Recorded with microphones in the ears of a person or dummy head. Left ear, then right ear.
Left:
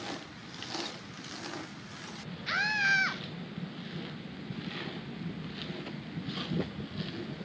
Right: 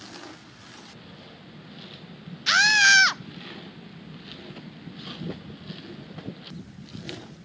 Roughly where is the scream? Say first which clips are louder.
Right 11 dB; right.